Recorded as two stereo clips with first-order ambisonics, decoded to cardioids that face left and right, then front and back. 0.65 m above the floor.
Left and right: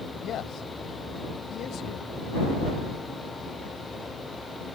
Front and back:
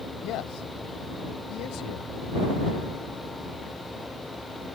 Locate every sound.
0.2 s a man speaking: 35° left